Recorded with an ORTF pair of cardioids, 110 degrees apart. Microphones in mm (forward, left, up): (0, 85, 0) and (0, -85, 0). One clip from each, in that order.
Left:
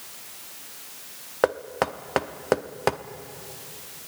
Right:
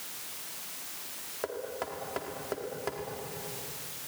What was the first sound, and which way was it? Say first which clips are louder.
Knocking: left 12 dB; 65° left.